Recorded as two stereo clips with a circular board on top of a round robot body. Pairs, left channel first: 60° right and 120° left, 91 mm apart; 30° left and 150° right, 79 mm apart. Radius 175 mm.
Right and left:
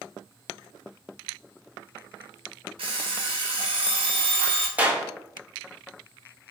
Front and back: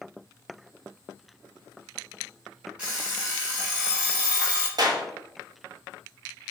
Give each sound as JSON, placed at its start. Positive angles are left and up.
{"t": 2.8, "sound": "an alarm clock", "azimuth_deg": 135, "distance_m": 1.2}
{"t": 4.8, "sound": "a clap", "azimuth_deg": -170, "distance_m": 1.0}